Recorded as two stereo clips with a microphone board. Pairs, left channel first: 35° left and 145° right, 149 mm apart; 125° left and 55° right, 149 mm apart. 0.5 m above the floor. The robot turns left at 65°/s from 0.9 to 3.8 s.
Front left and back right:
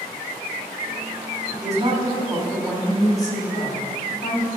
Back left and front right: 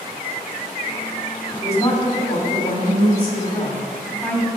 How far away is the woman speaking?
About 2.0 m.